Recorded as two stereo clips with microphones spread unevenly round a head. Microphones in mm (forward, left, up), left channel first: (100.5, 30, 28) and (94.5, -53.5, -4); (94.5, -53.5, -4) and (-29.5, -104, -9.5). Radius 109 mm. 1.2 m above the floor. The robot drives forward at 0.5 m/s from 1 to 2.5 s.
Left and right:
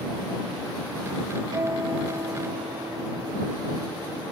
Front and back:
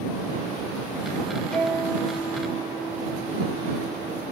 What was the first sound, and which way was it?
A guitar, 60° right.